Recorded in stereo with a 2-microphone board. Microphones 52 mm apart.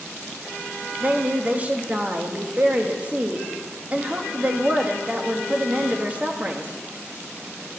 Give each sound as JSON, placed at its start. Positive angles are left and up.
{"t": 1.0, "sound": "a woman speaking", "side_deg": -30, "distance_m": 1.0}